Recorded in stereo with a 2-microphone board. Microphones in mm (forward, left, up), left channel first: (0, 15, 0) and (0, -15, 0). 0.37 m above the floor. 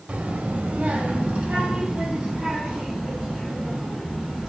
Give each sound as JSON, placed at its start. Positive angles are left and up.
{"t": 0.1, "sound": "a child speaking", "side_deg": -55, "distance_m": 0.8}